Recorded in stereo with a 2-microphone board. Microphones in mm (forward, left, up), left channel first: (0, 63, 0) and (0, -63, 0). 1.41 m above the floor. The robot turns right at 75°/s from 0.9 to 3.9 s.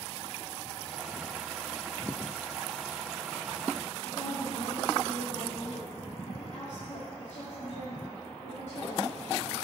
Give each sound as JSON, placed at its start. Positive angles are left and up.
{"t": 4.0, "sound": "a woman speaking", "side_deg": 85, "distance_m": 4.0}